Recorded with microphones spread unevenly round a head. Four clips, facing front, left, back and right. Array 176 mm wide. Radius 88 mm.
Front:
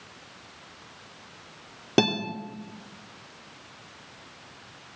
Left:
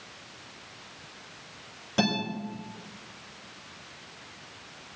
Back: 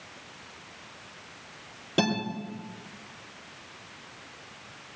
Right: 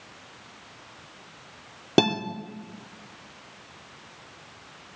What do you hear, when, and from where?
2.0 s a guitar: 60° right, 3.5 m